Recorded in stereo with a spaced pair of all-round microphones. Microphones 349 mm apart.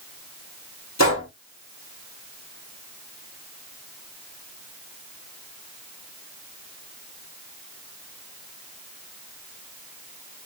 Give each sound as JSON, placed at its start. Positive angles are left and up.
{"t": 1.0, "sound": "a gunshot", "side_deg": 50, "distance_m": 1.4}